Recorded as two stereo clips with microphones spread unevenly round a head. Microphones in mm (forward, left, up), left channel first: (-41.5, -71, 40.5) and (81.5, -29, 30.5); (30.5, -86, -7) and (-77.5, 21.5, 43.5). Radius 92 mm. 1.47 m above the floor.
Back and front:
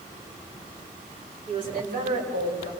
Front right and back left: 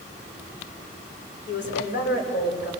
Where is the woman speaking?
5° right, 6 m; by 2.7 s 5° left, 5.5 m.